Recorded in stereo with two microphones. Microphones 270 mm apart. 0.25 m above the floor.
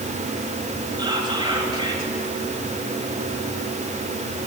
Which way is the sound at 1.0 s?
20° right (ahead or behind).